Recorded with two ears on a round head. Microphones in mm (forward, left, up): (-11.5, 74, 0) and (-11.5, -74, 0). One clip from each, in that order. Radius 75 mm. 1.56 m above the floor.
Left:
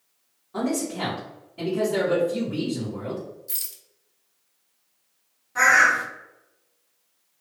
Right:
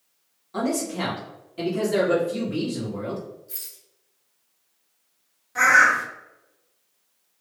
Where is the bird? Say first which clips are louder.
Right 1 dB; 30° right (ahead or behind), 1.5 m.